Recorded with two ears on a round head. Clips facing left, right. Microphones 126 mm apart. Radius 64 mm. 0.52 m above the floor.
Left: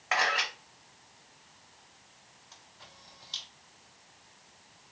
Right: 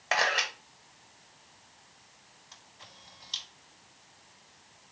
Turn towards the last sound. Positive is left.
turn(degrees=-25)  # may be behind; listen again after turning